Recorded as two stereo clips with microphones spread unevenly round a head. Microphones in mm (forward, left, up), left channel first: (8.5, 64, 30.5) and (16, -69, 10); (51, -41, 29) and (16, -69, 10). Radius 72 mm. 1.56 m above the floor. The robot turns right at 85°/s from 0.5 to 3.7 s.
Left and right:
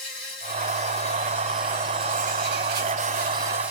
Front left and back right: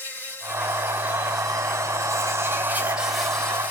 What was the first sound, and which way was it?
An insect, 90° left.